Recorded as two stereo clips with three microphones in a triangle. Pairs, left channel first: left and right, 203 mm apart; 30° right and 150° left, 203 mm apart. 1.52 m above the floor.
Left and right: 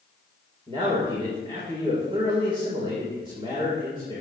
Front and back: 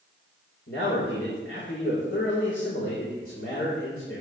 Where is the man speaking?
25° right, 4.5 m.